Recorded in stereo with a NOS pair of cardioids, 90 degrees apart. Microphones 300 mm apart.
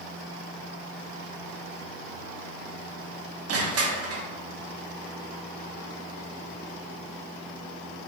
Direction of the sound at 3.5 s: 55° right.